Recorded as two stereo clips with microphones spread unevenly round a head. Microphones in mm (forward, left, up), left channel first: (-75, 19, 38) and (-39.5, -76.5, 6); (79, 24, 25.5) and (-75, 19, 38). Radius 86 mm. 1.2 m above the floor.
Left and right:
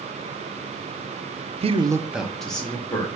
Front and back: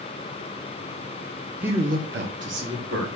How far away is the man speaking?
About 0.5 m.